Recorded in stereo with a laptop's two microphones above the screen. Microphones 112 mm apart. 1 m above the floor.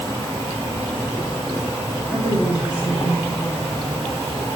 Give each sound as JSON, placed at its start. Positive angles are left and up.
{"t": 0.0, "sound": "an insect", "side_deg": 30, "distance_m": 1.0}
{"t": 2.1, "sound": "a woman speaking", "side_deg": 30, "distance_m": 1.6}